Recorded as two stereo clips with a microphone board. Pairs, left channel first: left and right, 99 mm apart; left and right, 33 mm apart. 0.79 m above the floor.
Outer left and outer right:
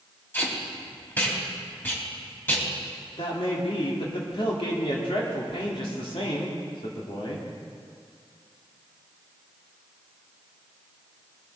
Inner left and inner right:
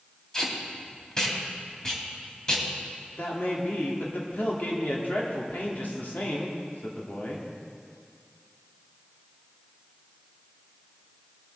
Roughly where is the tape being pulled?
Left.